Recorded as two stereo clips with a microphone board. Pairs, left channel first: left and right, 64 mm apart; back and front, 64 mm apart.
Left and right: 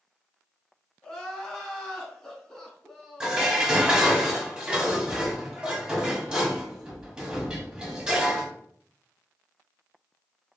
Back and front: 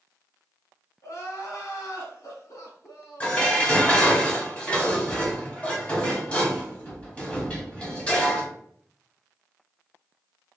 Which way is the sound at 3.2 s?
145° right.